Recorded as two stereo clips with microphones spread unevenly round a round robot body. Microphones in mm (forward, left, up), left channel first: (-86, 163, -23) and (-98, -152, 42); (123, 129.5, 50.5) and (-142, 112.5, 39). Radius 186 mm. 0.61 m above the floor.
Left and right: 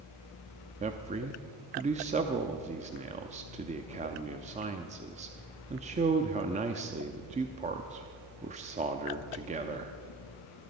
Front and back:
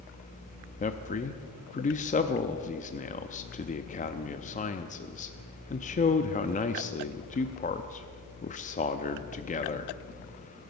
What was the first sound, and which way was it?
A man speaking, 20° right.